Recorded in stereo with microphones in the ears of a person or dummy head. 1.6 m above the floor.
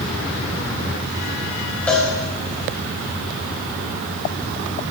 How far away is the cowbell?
About 0.9 m.